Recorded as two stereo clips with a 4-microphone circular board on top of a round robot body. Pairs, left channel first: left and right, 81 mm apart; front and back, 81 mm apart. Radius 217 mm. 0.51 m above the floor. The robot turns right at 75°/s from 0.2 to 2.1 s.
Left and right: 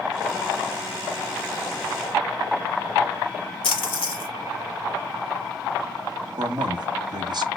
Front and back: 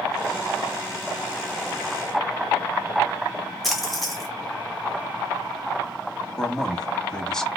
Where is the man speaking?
80° right, 1.1 m.